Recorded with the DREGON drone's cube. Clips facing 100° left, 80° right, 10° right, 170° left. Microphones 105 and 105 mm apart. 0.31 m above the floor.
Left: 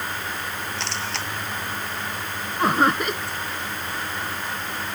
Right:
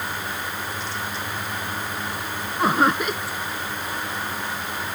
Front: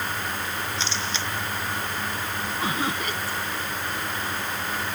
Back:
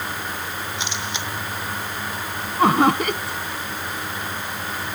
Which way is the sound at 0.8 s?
95° left.